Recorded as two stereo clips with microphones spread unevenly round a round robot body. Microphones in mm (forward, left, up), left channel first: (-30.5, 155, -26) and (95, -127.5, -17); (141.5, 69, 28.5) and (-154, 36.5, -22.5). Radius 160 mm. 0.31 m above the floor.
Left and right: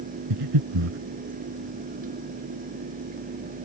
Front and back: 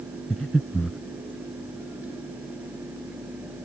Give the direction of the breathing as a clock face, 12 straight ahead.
3 o'clock.